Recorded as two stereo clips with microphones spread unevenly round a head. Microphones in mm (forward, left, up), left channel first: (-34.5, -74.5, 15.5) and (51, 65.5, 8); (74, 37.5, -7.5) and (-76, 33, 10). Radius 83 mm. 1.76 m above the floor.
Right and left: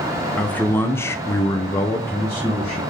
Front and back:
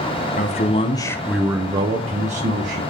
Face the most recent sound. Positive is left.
turn(degrees=160)